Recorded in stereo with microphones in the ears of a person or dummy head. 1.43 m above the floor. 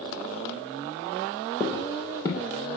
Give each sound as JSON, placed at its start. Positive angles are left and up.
{"t": 1.6, "sound": "footsteps", "side_deg": 20, "distance_m": 2.5}